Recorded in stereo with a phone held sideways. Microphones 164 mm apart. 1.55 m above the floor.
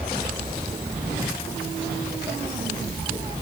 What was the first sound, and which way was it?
Only background noise.